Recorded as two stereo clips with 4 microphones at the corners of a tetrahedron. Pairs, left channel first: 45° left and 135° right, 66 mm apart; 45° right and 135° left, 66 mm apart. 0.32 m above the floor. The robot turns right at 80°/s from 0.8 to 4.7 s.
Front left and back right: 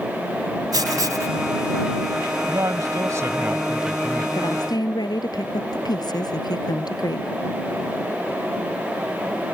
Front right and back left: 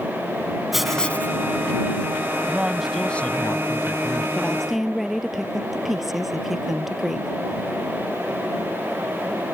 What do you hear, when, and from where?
0.7 s writing: 140° right; by 1.4 s 95° right
2.5 s a man speaking: 165° right; by 4.2 s 25° right
4.3 s a woman speaking: 20° left; by 7.3 s 50° left